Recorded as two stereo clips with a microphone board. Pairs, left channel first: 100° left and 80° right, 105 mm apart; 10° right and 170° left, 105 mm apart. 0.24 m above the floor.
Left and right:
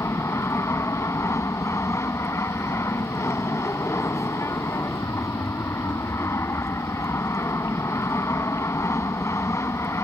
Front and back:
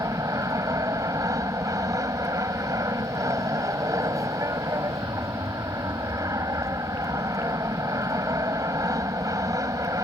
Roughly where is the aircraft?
Behind left.